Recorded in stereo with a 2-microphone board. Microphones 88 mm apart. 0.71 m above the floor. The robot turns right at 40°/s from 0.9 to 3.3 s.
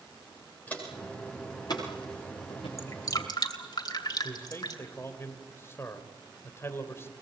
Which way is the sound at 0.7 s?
20° left (ahead or behind).